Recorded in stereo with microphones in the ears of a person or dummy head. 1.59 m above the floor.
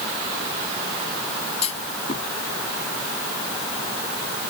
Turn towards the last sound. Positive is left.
turn(degrees=40)  # may be behind; listen again after turning